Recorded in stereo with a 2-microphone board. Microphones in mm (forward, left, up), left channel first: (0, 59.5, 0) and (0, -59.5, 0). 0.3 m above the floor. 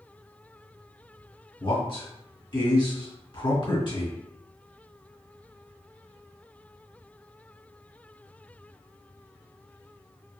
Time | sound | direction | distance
1.6 | a man speaking | 50° left (ahead or behind) | 1.5 m